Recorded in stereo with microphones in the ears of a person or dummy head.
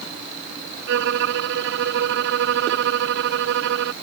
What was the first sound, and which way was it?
A violin, 75° right (ahead or behind).